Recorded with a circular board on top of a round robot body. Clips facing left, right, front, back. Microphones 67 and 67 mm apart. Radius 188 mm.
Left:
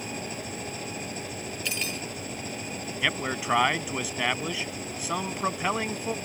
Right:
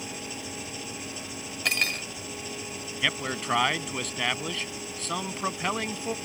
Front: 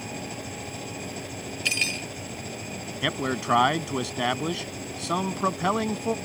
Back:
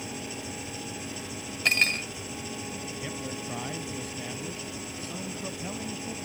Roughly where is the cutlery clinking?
Behind right.